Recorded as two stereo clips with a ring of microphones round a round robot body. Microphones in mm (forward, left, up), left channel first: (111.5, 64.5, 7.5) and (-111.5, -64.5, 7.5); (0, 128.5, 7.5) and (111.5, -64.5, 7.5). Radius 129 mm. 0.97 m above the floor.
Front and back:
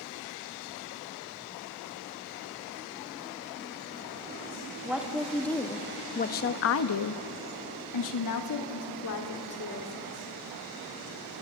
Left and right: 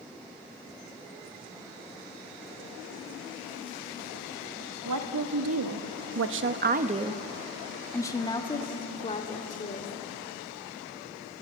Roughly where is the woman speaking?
Ahead right.